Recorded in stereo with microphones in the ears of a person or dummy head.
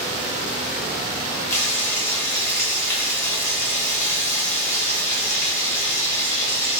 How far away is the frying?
About 1.0 m.